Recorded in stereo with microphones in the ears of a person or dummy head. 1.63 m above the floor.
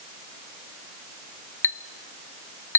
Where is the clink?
15° left (ahead or behind), 0.7 m.